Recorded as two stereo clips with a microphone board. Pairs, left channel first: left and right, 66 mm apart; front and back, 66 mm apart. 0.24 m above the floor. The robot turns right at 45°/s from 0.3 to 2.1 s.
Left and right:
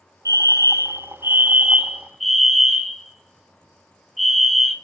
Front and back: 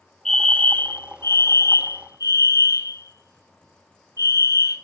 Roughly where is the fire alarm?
Right.